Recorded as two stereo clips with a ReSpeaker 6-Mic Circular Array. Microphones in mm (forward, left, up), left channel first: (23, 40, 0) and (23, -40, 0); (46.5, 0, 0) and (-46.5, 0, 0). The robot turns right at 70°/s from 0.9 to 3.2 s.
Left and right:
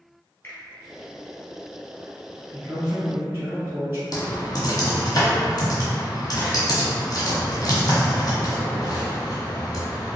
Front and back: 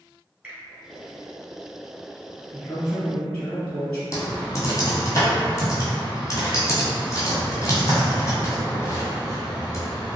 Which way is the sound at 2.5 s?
110° right.